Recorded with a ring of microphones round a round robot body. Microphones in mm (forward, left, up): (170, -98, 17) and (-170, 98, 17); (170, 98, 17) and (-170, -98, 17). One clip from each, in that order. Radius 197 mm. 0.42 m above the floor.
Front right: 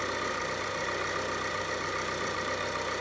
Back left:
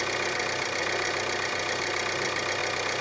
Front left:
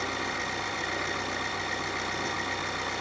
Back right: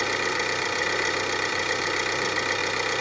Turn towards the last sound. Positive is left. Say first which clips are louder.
# back left 4 dB, back right 6 dB
turn(degrees=175)